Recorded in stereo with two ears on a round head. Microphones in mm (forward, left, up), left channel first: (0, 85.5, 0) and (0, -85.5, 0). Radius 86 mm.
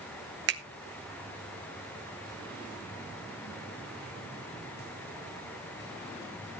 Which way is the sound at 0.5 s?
65° right (ahead or behind).